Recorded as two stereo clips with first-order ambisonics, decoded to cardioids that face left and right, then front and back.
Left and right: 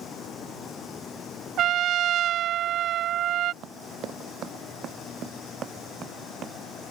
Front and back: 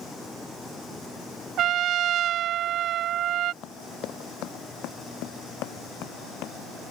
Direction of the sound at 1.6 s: 135° right.